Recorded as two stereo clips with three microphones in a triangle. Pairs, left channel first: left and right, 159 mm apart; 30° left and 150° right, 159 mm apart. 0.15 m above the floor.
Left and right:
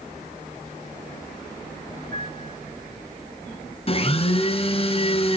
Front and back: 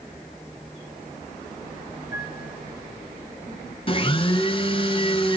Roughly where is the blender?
Ahead left.